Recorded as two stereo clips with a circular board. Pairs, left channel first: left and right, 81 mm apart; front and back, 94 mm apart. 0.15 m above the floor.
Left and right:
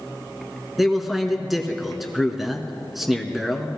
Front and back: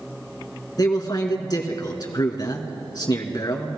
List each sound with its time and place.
0.8 s a man speaking: straight ahead, 1.5 m